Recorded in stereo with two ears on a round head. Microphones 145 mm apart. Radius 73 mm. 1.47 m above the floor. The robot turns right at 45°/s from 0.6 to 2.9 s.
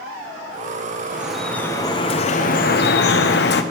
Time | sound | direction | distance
1.1 | dripping | 10° right | 0.9 m